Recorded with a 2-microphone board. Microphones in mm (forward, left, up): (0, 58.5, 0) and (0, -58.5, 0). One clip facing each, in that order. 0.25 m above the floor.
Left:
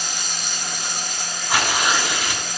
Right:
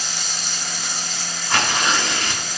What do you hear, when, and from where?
0.0 s running water: 50° left (ahead or behind), 1.6 m
1.5 s tearing paper: 10° left (ahead or behind), 3 m